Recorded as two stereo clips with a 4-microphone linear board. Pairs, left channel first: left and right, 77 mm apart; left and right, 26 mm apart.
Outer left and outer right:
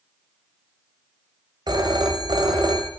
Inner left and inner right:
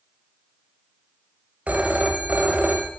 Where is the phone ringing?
70° right (ahead or behind), 1.1 m.